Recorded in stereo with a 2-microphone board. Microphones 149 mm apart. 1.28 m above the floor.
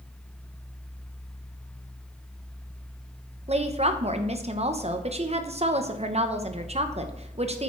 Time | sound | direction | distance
3.5 | a woman speaking | 45° right (ahead or behind) | 0.9 m